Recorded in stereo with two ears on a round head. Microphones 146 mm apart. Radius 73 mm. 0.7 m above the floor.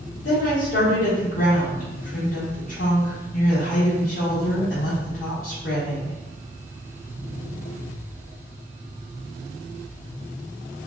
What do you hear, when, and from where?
0.2 s a woman speaking: 55° left (ahead or behind), 1.6 m